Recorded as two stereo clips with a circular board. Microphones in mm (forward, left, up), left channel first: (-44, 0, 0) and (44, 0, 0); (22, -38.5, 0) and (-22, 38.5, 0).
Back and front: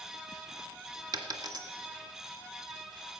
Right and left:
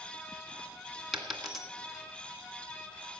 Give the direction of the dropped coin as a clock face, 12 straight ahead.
11 o'clock.